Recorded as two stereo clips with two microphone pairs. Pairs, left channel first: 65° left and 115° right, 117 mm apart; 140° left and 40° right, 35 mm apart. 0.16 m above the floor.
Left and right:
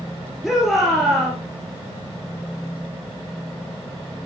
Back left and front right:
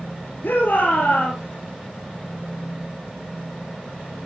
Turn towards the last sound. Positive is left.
turn(degrees=155)